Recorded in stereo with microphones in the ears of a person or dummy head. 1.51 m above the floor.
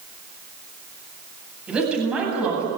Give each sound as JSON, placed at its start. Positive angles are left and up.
{"t": 1.7, "sound": "a woman speaking", "side_deg": -10, "distance_m": 9.0}